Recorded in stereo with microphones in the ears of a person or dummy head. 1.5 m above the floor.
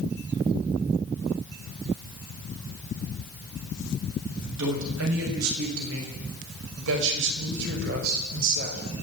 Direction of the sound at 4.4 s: 80° right.